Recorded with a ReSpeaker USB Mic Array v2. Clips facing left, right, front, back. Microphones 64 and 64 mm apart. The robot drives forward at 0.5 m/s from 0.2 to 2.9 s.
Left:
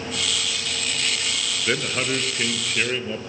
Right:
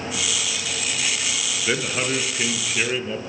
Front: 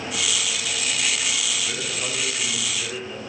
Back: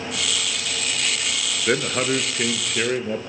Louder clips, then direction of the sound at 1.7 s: Even, back 8 dB; straight behind.